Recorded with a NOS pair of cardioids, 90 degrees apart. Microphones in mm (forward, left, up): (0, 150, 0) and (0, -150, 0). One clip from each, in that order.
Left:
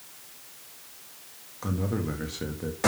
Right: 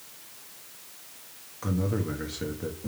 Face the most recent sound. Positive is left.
turn(degrees=10)